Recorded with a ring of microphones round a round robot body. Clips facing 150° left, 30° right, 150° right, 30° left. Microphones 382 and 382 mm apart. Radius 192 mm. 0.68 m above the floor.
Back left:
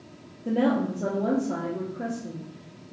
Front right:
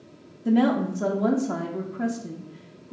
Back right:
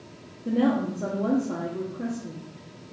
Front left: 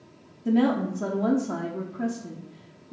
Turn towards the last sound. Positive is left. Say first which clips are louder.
# front right 3 dB, front left 1 dB
turn(degrees=-25)